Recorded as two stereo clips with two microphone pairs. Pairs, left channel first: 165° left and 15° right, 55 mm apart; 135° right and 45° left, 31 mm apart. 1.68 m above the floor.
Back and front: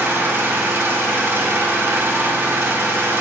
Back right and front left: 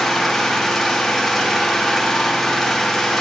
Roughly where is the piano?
No piano in this recording.